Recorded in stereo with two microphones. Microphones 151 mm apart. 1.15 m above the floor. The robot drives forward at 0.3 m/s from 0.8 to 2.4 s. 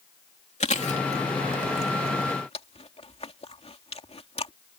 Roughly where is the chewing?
Left.